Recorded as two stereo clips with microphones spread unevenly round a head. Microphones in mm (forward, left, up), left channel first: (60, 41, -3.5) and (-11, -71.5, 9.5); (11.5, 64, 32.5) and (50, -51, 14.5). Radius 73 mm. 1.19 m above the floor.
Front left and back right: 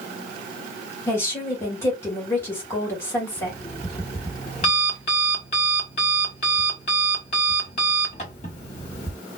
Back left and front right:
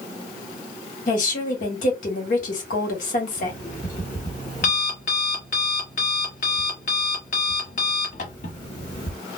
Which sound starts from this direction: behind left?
A woman speaking, at 1.1 s.